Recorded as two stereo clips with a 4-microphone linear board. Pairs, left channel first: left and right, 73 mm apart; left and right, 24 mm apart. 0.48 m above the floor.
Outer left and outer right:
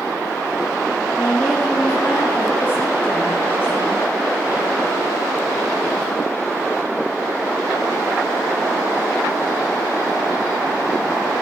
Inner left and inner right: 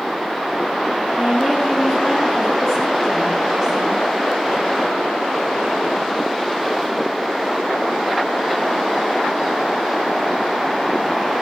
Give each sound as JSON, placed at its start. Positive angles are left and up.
{"t": 1.1, "sound": "a woman speaking", "side_deg": 25, "distance_m": 8.0}